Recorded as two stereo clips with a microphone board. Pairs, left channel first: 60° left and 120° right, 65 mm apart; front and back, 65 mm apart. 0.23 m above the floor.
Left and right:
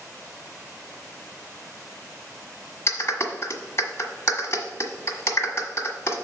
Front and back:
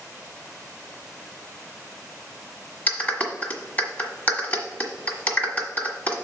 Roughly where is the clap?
Ahead left.